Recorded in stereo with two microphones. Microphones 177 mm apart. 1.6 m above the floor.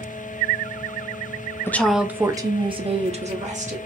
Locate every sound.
1.7 s a woman speaking: 10° left (ahead or behind), 0.5 m; by 3.8 s 45° right (ahead or behind), 1.3 m